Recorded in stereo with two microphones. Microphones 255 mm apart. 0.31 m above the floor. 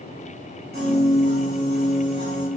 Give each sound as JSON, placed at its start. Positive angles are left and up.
{"t": 0.7, "sound": "a piano", "side_deg": -40, "distance_m": 1.3}